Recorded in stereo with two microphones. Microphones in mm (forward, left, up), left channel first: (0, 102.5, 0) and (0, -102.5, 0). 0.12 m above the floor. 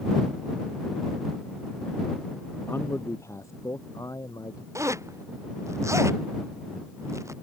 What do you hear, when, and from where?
2.7 s a man speaking: 10° left (ahead or behind); by 4.7 s 15° left (ahead or behind)
4.8 s a zipper: 15° right (ahead or behind)